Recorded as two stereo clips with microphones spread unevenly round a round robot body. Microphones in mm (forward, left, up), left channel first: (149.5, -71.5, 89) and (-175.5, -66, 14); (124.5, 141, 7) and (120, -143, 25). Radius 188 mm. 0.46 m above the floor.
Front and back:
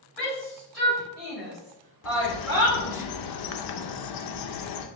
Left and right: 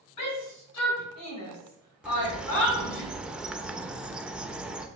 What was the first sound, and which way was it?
A shout, 90° left.